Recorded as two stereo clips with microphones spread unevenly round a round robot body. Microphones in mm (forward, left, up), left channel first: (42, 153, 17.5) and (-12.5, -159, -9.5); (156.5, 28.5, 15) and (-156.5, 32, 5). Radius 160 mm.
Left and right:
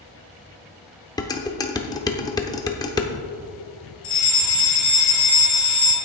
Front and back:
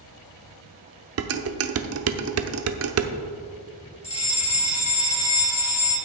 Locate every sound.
1.2 s dishes clattering: 160° left, 0.8 m
4.0 s a fire alarm: 65° left, 3 m